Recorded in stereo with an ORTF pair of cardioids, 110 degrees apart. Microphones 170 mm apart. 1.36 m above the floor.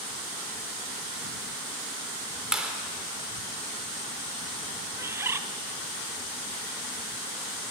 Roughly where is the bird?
Ahead.